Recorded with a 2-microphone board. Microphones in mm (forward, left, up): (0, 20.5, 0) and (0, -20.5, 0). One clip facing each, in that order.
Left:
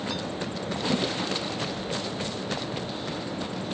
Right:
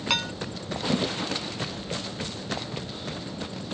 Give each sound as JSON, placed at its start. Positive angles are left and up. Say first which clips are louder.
{"t": 0.1, "sound": "dishes clattering", "louder": "right 5 dB", "side_deg": -75}